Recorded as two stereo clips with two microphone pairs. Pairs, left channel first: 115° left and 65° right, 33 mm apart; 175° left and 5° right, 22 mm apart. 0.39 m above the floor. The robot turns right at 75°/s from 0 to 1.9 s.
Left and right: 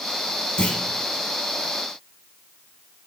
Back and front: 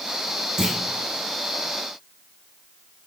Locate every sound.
0.6 s a clunk: 55° left, 0.7 m; by 0.8 s 75° left, 0.7 m